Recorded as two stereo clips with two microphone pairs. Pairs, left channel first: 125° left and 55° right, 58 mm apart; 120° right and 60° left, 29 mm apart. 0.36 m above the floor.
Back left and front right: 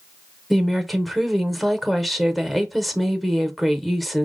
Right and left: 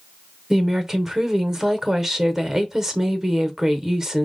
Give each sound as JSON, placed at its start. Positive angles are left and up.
{"t": 0.5, "sound": "a woman speaking", "azimuth_deg": 25, "distance_m": 0.8}